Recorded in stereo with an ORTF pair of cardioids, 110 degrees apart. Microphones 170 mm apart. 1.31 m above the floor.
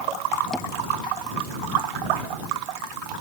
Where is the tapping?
Straight ahead.